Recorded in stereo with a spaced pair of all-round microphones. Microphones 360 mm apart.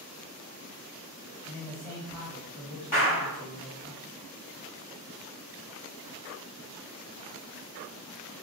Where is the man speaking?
Centre (ahead or behind), 1.5 m.